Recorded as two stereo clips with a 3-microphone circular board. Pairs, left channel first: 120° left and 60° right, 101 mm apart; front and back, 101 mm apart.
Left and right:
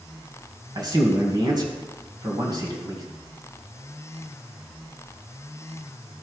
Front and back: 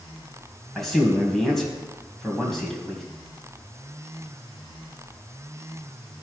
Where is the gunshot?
I don't hear a gunshot.